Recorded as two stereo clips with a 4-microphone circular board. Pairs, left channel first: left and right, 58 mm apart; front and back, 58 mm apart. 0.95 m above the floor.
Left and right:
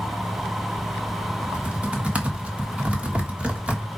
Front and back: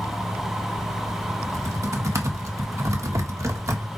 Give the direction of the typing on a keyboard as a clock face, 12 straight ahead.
5 o'clock.